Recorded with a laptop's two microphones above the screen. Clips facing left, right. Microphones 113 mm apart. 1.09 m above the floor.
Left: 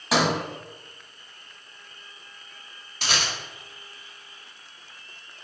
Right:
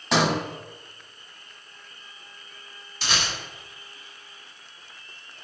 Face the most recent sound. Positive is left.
turn(degrees=65)  # may be behind; listen again after turning